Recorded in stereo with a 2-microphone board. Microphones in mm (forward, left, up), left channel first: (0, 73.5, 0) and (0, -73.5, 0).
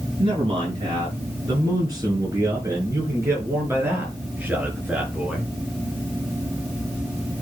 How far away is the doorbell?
I don't hear a doorbell.